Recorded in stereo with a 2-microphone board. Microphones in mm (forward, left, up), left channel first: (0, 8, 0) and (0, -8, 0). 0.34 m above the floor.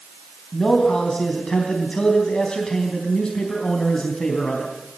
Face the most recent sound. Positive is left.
turn(degrees=60)  # may be behind; listen again after turning